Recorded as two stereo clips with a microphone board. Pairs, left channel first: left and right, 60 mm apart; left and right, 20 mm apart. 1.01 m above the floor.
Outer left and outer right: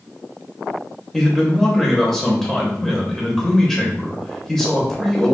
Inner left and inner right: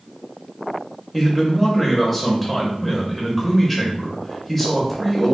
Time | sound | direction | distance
1.1 | a man speaking | 5° left (ahead or behind) | 0.6 m